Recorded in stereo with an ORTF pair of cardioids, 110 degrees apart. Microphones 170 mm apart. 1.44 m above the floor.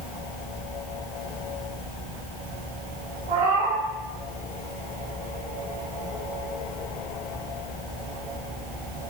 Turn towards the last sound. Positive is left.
turn(degrees=-50)